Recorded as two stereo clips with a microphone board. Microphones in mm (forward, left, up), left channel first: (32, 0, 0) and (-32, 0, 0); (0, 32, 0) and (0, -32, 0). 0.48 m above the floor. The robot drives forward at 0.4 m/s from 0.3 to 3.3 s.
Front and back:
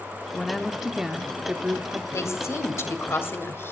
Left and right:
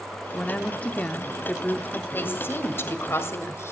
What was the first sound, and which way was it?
A woman speaking, 70° left.